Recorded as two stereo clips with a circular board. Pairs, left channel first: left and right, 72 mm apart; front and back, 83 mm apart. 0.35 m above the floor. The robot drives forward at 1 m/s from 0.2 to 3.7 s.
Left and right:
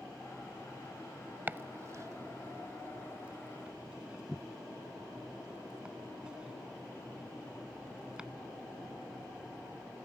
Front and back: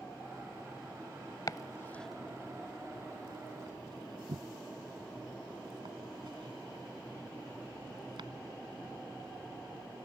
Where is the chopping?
30° right; by 8.3 s 165° right.